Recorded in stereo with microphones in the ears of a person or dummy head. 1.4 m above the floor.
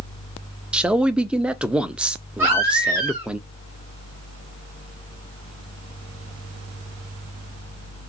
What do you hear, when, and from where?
0.7 s a man speaking: 10° right (ahead or behind), 0.6 m
2.4 s a baby crying: 5° right (ahead or behind), 1.4 m